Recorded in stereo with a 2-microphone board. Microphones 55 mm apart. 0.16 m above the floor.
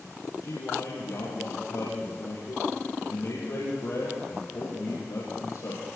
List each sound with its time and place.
0.4 s a man speaking: 65° left (ahead or behind), 6 m